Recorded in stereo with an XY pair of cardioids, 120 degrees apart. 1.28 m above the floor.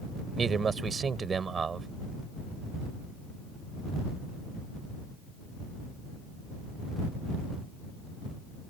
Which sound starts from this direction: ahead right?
A man speaking, at 0.4 s.